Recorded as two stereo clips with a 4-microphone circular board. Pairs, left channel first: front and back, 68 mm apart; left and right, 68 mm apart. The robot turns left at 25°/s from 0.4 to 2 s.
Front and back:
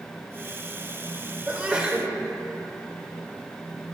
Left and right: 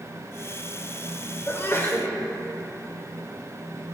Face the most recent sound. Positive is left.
turn(degrees=110)